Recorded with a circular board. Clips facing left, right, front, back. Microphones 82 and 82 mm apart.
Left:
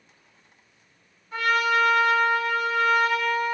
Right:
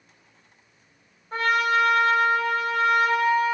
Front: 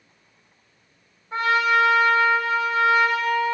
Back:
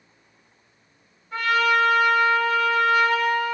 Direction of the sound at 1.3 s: 55° right.